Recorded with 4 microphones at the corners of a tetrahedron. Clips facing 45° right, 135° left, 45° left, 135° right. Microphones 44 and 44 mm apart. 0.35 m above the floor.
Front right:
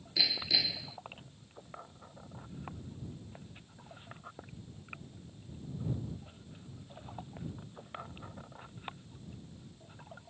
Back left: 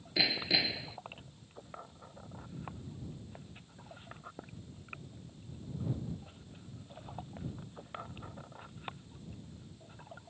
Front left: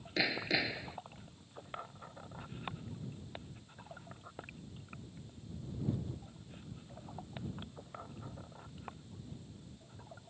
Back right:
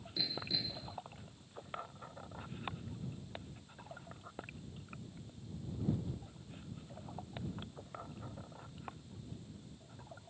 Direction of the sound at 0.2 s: 70° left.